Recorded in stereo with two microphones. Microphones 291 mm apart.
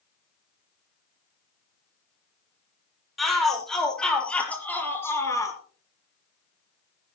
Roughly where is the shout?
Centre.